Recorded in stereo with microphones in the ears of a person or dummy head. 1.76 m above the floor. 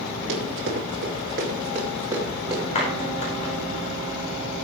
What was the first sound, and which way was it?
Running footsteps, 55° right (ahead or behind).